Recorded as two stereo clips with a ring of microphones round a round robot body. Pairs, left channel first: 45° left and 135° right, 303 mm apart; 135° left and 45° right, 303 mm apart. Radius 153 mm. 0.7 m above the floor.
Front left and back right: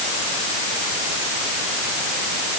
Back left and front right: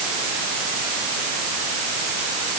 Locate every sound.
Only background noise.